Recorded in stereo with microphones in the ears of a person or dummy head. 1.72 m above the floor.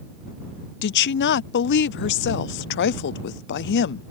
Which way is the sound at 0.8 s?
55° left (ahead or behind).